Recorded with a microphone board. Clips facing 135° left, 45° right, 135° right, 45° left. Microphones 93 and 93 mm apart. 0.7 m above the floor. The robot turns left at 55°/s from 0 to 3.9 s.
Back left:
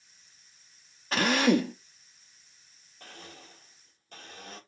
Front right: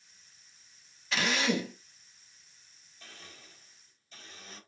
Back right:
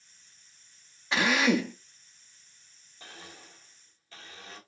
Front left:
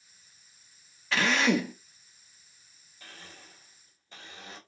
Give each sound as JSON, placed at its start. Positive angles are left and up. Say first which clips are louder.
{"t": 1.1, "sound": "a drill", "louder": "back left 6 dB, back right 1 dB", "azimuth_deg": 160, "distance_m": 0.8}
{"t": 3.0, "sound": "a blender", "louder": "back left 5 dB, back right 2 dB", "azimuth_deg": 165, "distance_m": 1.6}